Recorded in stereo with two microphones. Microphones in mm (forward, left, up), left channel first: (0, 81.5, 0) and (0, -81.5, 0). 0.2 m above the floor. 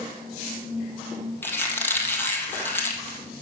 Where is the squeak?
15° left (ahead or behind), 1.7 m.